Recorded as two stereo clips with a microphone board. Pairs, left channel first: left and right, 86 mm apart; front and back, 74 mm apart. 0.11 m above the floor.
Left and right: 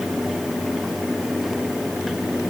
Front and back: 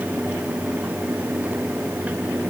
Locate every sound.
Only background noise.